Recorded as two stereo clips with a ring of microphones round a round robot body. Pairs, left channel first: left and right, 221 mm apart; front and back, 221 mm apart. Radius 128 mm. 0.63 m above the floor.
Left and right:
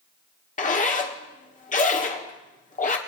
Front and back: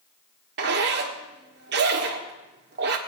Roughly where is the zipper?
Behind left.